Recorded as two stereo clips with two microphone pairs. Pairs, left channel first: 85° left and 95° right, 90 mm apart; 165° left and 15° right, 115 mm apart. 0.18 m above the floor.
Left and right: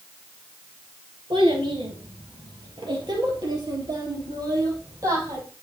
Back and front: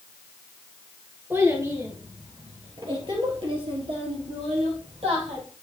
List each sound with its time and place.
1.3 s a child speaking: 85° right, 2.5 m; by 5.4 s 40° right, 4 m